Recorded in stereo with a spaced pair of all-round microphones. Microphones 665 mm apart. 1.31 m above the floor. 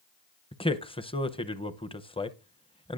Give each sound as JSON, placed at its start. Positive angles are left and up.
{"t": 0.5, "sound": "a man speaking", "side_deg": 10, "distance_m": 0.6}